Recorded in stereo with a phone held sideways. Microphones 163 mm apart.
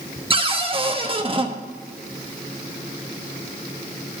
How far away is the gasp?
I don't hear a gasp.